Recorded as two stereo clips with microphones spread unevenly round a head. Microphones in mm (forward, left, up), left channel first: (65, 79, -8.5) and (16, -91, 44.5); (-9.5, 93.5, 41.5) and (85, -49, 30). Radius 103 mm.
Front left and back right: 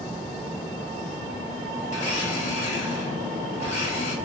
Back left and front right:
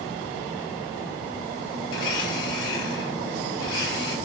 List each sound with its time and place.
1.9 s a blender: 130° left, 4.5 m